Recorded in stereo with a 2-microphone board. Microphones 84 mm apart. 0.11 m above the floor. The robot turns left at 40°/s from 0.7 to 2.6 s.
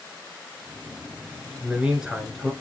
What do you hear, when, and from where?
1.6 s a man speaking: 15° right (ahead or behind), 1.2 m; by 2.5 s centre (ahead or behind), 1.2 m